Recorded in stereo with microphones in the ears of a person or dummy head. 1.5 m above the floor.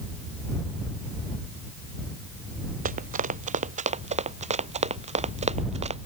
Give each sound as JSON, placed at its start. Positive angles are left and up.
{"t": 2.9, "sound": "running footsteps", "side_deg": -40}